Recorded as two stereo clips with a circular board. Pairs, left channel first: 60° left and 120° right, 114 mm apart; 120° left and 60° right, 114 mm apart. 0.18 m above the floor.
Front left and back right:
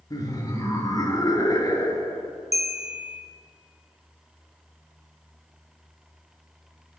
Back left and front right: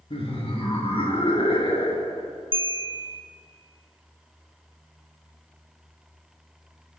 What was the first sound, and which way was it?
Laughter, 105° left.